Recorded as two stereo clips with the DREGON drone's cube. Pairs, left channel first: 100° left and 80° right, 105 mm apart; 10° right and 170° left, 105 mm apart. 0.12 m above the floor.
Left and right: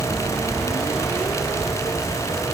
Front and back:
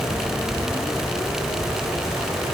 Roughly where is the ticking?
No ticking in this recording.